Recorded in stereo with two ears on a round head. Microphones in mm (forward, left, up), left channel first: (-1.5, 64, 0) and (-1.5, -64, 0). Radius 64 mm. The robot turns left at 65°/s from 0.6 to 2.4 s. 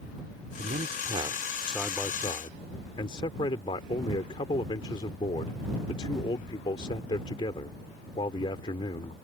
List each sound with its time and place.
0.6 s a man speaking: 105° right; by 9.1 s 140° left